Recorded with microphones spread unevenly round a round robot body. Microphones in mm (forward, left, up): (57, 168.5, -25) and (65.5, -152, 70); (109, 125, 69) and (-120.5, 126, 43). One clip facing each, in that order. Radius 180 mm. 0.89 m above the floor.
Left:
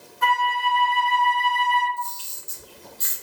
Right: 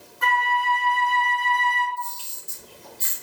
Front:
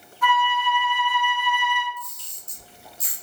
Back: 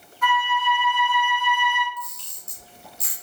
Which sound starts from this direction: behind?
A camera shutter, at 2.0 s.